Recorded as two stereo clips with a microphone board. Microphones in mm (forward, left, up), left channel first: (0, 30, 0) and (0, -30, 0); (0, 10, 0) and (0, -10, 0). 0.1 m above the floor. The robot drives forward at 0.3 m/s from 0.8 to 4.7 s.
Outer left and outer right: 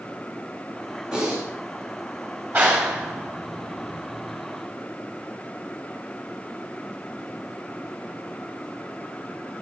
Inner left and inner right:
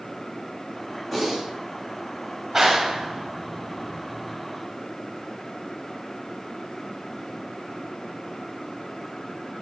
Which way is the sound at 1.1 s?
15° right (ahead or behind).